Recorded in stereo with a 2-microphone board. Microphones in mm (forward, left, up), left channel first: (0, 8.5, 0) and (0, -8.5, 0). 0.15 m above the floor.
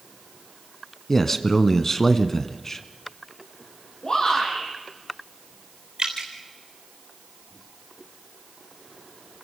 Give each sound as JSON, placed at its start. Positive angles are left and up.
{"t": 1.1, "sound": "a man speaking", "side_deg": 25, "distance_m": 1.1}
{"t": 4.0, "sound": "a shout", "side_deg": 55, "distance_m": 8.0}
{"t": 6.0, "sound": "dripping", "side_deg": -60, "distance_m": 3.5}